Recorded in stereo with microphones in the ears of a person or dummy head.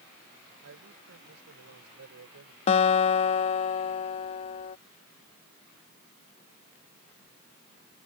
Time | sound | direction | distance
0.6 | a man speaking | 85° right | ?
2.7 | a guitar | 35° left (ahead or behind) | ?